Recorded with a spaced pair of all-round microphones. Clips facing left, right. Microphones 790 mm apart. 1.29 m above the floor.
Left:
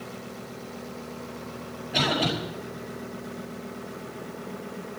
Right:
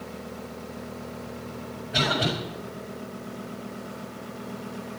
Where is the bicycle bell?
No bicycle bell in this recording.